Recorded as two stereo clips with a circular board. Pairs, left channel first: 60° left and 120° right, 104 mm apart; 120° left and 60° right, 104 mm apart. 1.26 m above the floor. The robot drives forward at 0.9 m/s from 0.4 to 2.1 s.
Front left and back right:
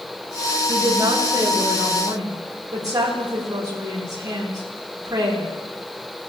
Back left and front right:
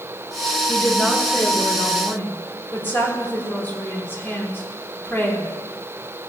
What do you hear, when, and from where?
0.7 s a woman speaking: 165° right, 1.6 m; by 5.5 s 170° right, 3 m